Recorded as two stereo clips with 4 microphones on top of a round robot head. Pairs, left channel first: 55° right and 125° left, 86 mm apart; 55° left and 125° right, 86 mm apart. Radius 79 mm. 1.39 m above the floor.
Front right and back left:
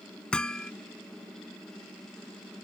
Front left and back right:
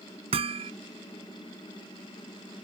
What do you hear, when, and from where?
0.3 s hammering: 135° right